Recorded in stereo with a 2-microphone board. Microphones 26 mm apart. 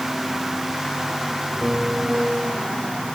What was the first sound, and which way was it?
A piano, 40° right (ahead or behind).